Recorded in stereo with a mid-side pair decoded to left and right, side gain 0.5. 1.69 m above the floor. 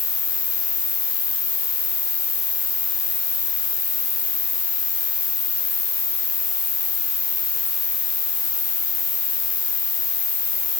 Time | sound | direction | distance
0.0 | an insect | 55° left | 5 m